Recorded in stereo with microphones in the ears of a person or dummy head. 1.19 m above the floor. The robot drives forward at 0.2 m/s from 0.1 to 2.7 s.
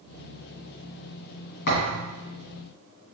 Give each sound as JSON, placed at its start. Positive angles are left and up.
{"t": 1.7, "sound": "a thud", "side_deg": 45, "distance_m": 2.0}